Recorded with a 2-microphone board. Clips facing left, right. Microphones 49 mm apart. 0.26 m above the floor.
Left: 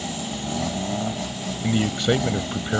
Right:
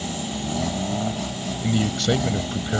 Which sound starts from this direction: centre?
A man speaking, at 1.6 s.